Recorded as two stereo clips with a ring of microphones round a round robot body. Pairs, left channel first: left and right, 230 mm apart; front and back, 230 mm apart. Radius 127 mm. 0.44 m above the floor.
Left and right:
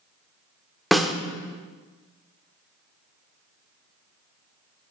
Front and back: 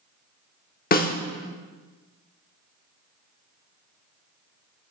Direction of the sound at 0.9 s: Straight ahead.